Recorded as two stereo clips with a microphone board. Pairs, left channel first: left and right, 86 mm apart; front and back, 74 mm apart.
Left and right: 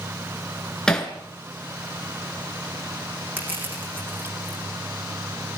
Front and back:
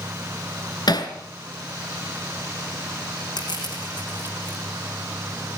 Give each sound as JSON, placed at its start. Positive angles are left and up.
{"t": 0.9, "sound": "hammering", "azimuth_deg": 10, "distance_m": 2.5}
{"t": 3.4, "sound": "crushing", "azimuth_deg": -20, "distance_m": 8.0}